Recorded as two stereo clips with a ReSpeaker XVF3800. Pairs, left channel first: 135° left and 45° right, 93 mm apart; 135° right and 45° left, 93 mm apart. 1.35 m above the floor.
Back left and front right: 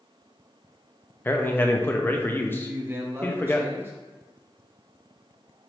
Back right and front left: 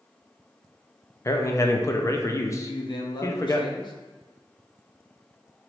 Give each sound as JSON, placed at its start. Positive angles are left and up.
{"t": 1.2, "sound": "a man speaking", "azimuth_deg": -170, "distance_m": 0.6}
{"t": 2.6, "sound": "a man speaking", "azimuth_deg": -110, "distance_m": 0.9}